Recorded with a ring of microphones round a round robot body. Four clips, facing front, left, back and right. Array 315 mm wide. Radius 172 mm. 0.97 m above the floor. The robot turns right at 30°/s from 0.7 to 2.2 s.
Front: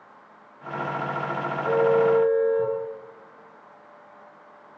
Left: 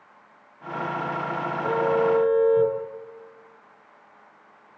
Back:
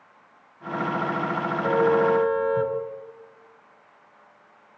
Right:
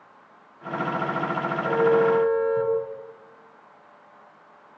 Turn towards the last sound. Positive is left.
turn(degrees=175)